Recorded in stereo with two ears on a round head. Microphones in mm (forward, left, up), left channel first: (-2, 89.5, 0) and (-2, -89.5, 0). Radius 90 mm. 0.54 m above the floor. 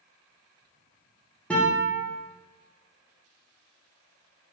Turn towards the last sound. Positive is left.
turn(degrees=5)  # may be behind; listen again after turning